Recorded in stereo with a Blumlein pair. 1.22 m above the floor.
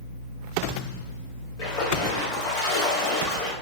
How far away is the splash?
About 1.4 m.